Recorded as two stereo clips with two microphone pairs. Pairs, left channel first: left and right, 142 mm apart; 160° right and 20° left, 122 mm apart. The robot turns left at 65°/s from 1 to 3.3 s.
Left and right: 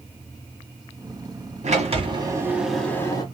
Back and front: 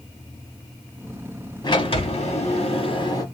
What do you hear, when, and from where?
1.6 s a sliding door: 110° right, 1.4 m; by 3.2 s 145° left, 1.4 m